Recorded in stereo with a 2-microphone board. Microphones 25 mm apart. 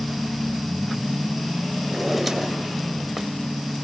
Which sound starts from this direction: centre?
A drawer, at 1.9 s.